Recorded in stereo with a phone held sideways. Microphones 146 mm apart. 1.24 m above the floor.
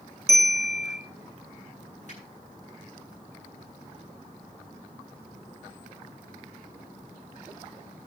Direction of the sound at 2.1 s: 55° left (ahead or behind).